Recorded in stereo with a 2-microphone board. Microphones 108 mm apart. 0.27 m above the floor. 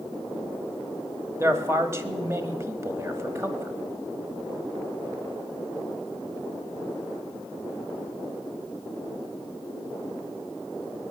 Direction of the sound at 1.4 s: 25° right (ahead or behind).